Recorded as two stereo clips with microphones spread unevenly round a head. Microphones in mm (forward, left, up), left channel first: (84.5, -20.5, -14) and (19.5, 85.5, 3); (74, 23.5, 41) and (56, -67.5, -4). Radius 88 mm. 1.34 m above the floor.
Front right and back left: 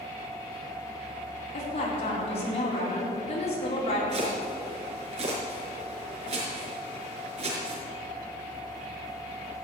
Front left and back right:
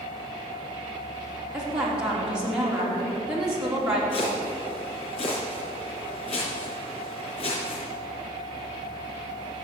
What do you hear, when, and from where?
1.5 s a woman speaking: 20° right, 4.5 m
4.1 s chopping: 95° left, 5 m